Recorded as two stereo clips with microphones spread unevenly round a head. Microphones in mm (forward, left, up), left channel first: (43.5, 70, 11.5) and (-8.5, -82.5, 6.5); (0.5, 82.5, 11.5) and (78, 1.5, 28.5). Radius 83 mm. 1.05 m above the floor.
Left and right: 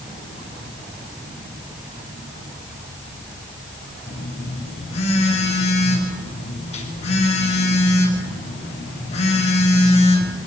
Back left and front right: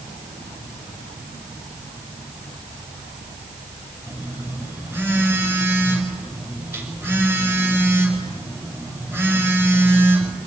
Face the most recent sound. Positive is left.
turn(degrees=25)